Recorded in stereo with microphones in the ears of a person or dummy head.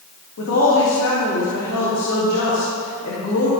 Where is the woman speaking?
80° left, 2.5 m.